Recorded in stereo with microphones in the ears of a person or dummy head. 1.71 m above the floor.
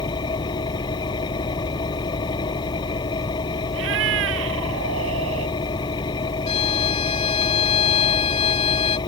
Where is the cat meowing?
70° right (ahead or behind).